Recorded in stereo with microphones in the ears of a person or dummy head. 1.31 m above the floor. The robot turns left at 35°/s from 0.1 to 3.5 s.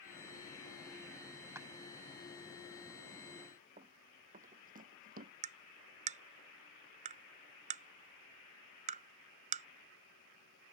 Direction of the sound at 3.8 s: 30° right (ahead or behind).